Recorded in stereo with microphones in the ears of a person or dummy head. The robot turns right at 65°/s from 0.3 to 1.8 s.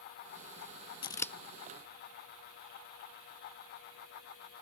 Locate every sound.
1.0 s scissors: 35° left (ahead or behind); by 1.3 s 15° left (ahead or behind)